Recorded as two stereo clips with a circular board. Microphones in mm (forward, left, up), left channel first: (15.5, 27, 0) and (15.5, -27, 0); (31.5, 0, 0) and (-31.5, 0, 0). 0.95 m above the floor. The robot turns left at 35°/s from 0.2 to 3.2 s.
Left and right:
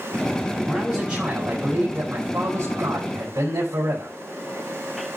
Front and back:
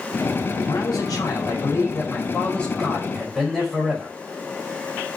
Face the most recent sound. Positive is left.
turn(degrees=-80)